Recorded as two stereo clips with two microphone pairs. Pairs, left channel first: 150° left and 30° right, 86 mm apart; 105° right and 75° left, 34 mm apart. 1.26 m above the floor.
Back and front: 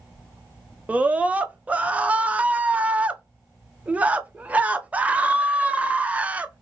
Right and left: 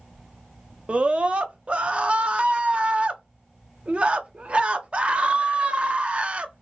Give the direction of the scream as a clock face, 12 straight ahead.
11 o'clock.